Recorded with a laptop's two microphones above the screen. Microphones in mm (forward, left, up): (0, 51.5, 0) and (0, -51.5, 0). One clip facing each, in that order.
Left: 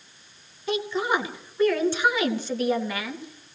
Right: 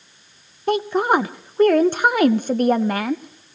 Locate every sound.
0.7 s a woman speaking: 50° right (ahead or behind), 0.7 m